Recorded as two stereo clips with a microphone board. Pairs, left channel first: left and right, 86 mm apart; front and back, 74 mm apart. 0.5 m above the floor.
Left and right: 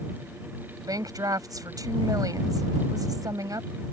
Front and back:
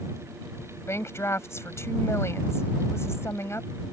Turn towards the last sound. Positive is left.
turn(degrees=-50)